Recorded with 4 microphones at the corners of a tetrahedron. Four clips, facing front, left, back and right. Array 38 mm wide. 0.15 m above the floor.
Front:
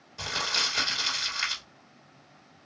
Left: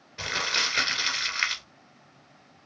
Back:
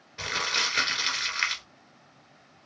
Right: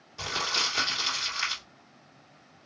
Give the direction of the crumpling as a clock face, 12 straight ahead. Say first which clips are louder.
Left 2 dB, back 1 dB; 8 o'clock.